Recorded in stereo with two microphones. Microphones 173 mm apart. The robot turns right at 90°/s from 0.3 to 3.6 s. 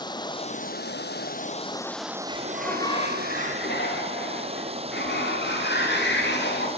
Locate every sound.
0.0 s running water: 25° left, 1.0 m; by 6.8 s 35° right, 1.0 m
2.3 s a sliding door: 30° right, 7 m; by 6.7 s 90° left, 7 m